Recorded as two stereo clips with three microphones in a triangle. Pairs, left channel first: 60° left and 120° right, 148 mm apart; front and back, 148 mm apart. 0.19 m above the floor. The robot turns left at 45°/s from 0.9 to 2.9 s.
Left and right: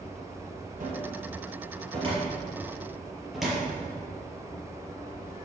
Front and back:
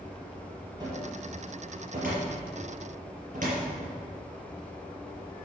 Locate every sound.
0.8 s a cupboard door: 120° right, 4.5 m; by 3.7 s 150° left, 4.5 m